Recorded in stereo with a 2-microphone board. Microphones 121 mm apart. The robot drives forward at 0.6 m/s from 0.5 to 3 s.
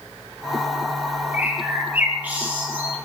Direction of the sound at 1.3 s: 15° right (ahead or behind).